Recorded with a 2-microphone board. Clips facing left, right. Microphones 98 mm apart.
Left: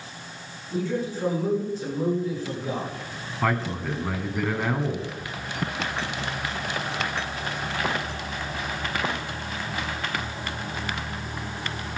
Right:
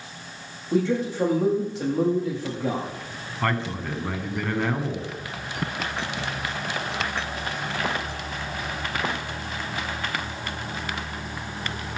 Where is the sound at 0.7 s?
75° right (ahead or behind), 7 m.